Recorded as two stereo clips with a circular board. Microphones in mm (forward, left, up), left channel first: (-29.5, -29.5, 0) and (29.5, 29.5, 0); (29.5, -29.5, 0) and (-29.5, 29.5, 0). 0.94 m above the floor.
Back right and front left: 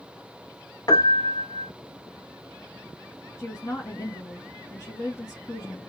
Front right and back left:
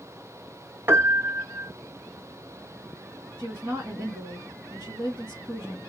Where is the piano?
165° right, 0.8 m.